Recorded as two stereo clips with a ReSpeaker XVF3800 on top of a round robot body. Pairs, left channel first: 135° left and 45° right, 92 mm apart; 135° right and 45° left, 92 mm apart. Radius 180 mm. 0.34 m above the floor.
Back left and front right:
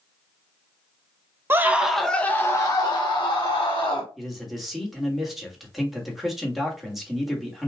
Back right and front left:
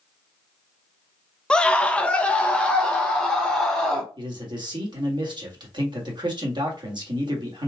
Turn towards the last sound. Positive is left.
turn(degrees=45)